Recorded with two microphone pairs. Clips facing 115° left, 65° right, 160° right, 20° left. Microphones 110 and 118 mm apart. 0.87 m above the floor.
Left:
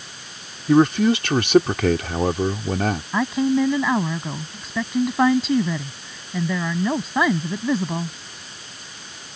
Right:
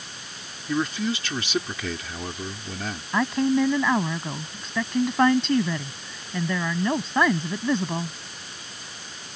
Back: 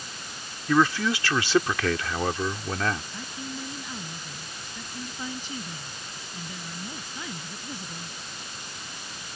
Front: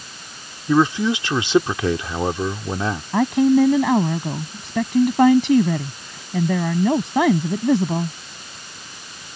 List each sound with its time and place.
0.7 s a man speaking: 90° left
3.1 s a woman speaking: 30° left